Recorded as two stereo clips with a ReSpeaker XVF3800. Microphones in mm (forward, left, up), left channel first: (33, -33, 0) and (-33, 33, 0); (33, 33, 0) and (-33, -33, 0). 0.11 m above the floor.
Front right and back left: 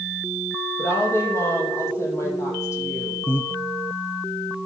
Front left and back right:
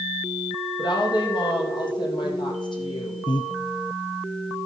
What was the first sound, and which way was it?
A woman speaking, 15° left.